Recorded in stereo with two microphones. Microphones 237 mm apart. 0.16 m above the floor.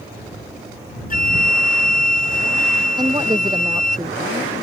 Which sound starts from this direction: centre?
A woman speaking, at 3.0 s.